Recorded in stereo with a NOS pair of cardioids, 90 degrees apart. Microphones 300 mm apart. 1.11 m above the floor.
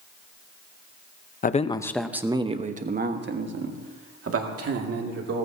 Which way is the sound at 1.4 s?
30° left.